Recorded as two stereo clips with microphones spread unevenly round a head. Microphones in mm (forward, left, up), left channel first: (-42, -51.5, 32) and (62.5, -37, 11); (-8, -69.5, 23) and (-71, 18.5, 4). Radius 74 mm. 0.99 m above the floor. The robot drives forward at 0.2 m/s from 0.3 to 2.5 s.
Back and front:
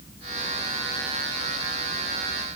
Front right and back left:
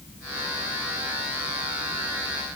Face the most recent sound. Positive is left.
No sound to turn to.